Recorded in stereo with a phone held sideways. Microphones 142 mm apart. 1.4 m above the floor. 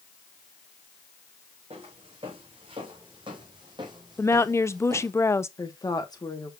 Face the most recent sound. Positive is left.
turn(degrees=30)  # may be behind; listen again after turning